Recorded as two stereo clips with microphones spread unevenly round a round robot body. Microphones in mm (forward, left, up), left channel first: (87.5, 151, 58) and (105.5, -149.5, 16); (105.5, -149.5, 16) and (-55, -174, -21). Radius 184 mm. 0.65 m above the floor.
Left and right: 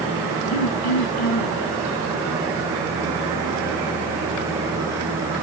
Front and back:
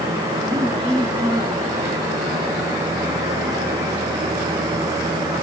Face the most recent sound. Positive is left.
turn(degrees=105)